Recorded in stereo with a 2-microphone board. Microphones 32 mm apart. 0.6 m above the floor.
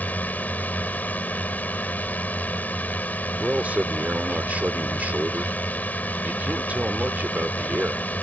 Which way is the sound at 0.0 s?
60° left (ahead or behind).